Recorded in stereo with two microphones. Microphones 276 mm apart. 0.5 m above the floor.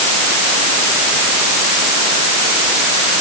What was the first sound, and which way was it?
Only background noise.